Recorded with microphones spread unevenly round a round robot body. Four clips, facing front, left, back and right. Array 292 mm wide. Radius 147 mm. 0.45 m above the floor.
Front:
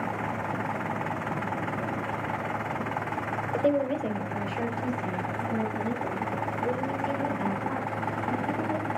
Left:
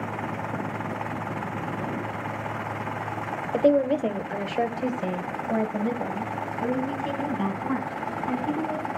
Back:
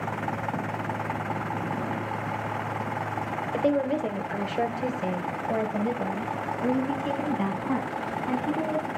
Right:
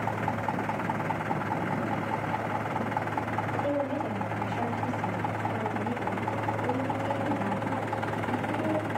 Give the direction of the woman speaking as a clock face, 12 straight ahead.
9 o'clock.